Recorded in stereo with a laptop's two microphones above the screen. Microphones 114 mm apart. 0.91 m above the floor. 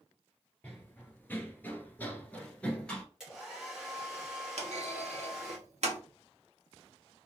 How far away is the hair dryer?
About 1.3 m.